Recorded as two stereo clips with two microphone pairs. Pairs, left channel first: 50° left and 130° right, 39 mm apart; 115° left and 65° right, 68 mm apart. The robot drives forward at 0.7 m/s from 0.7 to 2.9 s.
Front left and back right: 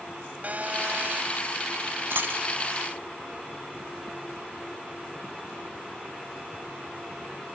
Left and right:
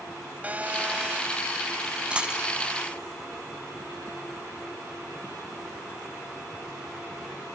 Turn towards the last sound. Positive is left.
turn(degrees=-155)